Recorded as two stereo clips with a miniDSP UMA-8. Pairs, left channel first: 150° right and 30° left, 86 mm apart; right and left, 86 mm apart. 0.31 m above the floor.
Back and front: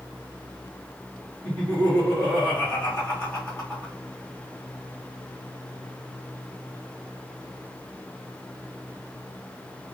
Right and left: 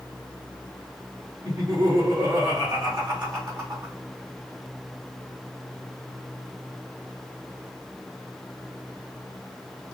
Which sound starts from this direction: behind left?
Laughter, at 1.4 s.